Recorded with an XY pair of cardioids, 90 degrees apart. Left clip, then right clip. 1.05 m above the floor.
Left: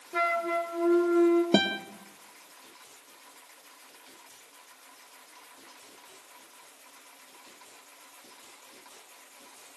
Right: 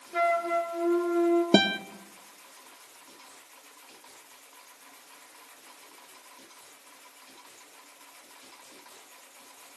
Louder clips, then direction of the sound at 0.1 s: Right 2 dB; 25° left.